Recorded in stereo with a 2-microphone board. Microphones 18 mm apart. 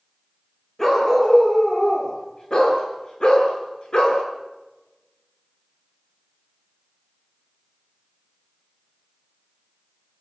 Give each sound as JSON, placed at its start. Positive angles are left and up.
{"t": 0.8, "sound": "a dog barking", "side_deg": 30, "distance_m": 6.5}